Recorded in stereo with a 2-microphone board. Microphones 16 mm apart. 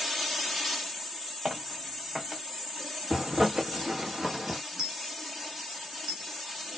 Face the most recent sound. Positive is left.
turn(degrees=-60)  # may be behind; listen again after turning